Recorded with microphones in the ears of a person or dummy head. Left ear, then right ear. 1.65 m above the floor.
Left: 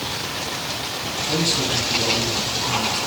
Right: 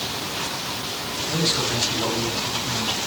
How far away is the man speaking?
About 9 m.